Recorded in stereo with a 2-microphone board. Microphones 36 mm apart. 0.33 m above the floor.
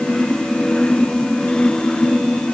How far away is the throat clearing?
I don't hear throat clearing.